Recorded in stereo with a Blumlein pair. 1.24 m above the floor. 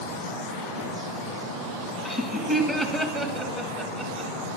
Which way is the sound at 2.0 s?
Straight ahead.